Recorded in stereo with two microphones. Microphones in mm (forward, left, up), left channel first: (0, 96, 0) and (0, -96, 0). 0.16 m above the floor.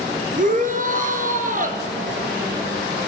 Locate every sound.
0.4 s a shout: 45° right (ahead or behind), 3 m